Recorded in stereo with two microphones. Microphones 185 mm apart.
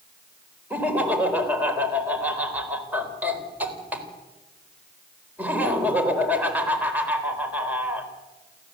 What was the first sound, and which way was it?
Laughter, 10° right (ahead or behind).